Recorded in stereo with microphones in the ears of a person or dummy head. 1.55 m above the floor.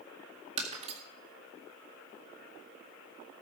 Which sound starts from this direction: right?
Breaking glass, at 0.6 s.